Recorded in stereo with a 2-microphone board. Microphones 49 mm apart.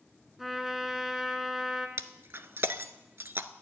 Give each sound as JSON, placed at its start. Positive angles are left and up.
{"t": 0.4, "sound": "a trumpet", "side_deg": -5, "distance_m": 1.1}
{"t": 2.0, "sound": "breaking glass", "side_deg": -50, "distance_m": 0.5}